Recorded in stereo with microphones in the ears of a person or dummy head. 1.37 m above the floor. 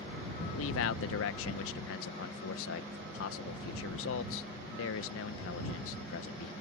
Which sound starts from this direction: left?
A man speaking, at 0.5 s.